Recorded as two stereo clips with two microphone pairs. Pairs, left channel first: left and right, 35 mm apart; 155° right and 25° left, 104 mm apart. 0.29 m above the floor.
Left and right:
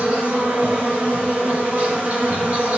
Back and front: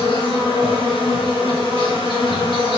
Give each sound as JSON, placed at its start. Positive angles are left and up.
{"t": 0.0, "sound": "an insect", "azimuth_deg": -125, "distance_m": 3.0}